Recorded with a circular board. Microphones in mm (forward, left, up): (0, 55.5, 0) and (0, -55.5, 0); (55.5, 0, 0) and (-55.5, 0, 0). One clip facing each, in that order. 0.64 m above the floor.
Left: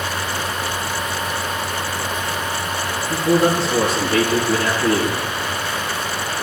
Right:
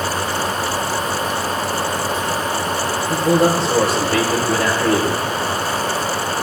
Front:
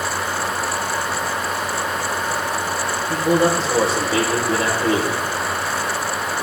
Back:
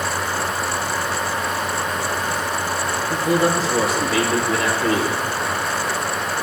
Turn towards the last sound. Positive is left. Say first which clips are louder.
# right 1 dB, front 2 dB
turn(degrees=-60)